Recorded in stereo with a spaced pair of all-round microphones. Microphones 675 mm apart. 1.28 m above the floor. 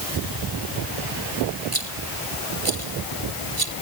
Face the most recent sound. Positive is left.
turn(degrees=-55)  # may be behind; listen again after turning